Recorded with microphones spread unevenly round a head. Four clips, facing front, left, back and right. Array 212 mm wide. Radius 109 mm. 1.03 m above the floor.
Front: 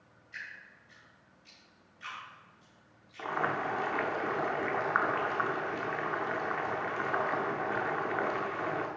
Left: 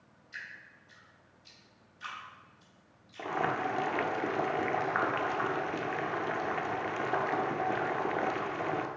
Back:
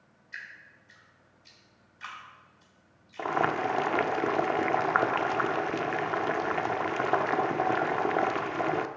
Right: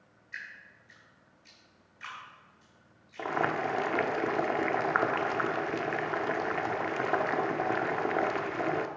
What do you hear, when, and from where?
0.3 s dripping: 175° right, 4.5 m
3.2 s boiling: 155° right, 0.6 m